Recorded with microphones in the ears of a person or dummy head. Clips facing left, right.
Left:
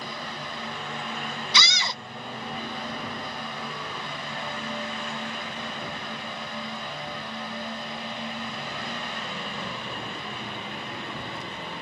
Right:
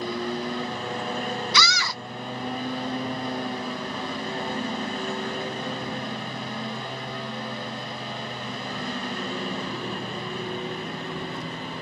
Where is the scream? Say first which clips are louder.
Right 3 dB; 20° left (ahead or behind).